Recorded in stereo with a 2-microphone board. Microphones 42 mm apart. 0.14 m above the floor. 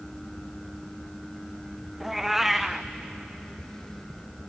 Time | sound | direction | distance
2.0 | a cat meowing | 5° right (ahead or behind) | 1.0 m